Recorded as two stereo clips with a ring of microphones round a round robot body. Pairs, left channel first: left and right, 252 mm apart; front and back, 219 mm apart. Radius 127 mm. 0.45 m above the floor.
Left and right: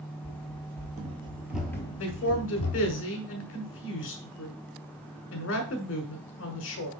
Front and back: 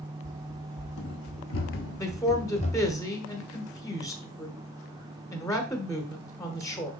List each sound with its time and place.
0.2 s running footsteps: 45° right, 1.1 m; by 3.0 s 70° left, 0.9 m
2.0 s a man speaking: 70° left, 1.2 m